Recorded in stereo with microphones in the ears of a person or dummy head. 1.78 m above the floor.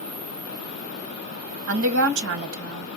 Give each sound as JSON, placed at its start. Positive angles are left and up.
{"t": 1.7, "sound": "a woman speaking", "side_deg": -65, "distance_m": 1.5}